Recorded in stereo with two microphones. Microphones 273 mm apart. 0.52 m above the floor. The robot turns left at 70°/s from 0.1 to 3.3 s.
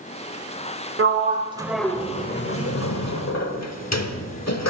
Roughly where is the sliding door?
Right.